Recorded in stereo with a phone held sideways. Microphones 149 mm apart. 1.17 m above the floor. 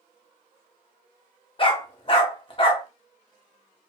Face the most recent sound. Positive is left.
turn(degrees=35)  # may be behind; listen again after turning